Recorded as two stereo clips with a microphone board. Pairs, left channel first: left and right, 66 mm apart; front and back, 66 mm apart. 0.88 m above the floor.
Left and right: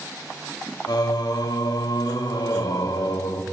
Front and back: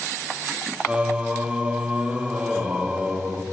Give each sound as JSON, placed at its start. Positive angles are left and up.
{"t": 0.9, "sound": "singing", "azimuth_deg": 105, "distance_m": 1.1}